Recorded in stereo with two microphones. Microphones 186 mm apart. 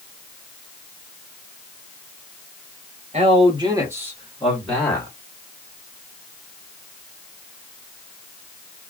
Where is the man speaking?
35° right (ahead or behind), 1.6 m; by 5.1 s 15° left (ahead or behind), 2.0 m.